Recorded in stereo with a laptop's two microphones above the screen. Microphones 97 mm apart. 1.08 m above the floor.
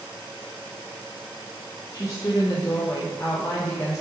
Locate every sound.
1.9 s a woman speaking: 35° left (ahead or behind), 0.5 m